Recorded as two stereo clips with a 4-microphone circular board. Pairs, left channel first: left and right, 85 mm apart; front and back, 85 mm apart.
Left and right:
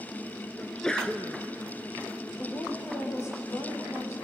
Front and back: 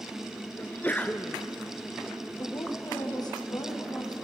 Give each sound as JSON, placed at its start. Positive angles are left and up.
{"t": 0.6, "sound": "a sneeze", "azimuth_deg": 20, "distance_m": 1.1}
{"t": 2.4, "sound": "a woman speaking", "azimuth_deg": 35, "distance_m": 5.0}